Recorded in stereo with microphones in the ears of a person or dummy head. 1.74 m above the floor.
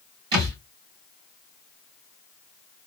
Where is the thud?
20° right (ahead or behind), 3.5 m.